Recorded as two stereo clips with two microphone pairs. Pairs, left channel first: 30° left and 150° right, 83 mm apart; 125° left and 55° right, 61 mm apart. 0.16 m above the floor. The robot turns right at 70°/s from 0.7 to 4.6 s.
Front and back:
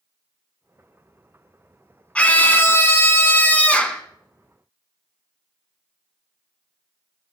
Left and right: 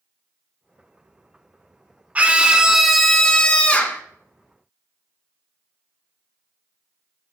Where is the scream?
30° right, 1.3 m; by 4.0 s 100° left, 1.3 m.